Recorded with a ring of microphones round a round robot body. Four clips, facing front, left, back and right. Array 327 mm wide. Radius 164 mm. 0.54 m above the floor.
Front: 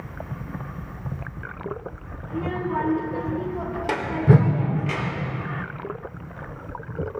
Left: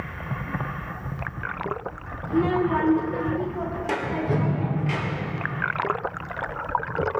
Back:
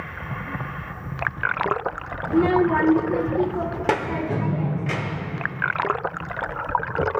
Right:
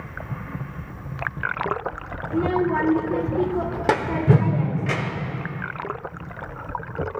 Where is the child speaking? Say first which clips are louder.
Even, back 9 dB; 170° left, 0.8 m; by 5.3 s 110° right, 1.7 m.